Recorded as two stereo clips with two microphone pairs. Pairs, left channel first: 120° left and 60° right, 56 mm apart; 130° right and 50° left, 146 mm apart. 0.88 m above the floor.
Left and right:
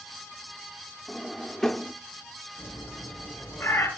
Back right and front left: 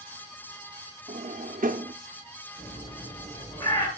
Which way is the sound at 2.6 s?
165° left.